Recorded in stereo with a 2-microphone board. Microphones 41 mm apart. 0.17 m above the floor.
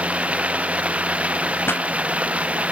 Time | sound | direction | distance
0.0 | running water | 30° right (ahead or behind) | ?
1.7 | a pop | 65° left (ahead or behind) | ?